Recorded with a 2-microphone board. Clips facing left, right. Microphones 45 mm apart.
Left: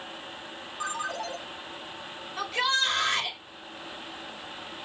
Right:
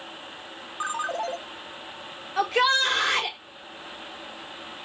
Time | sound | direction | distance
0.8 | a ringtone | 35° right (ahead or behind) | 1.1 m
2.4 | a shout | 85° right | 4 m